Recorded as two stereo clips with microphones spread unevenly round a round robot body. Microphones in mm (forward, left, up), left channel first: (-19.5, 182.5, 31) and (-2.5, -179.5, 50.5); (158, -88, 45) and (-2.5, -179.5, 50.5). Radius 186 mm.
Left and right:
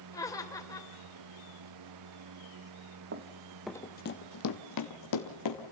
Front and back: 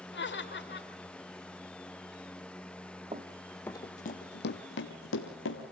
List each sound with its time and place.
0.1 s laughter: 10° left, 3 m
3.1 s running footsteps: 110° right, 1.0 m; by 5.7 s 55° left, 3 m